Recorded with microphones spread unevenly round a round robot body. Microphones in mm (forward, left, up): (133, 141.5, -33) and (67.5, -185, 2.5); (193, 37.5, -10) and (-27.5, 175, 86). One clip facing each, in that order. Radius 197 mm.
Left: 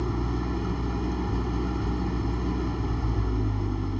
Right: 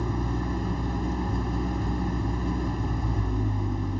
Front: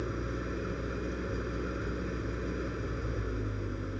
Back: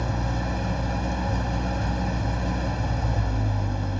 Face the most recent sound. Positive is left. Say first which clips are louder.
# even, back 5 dB
turn(degrees=180)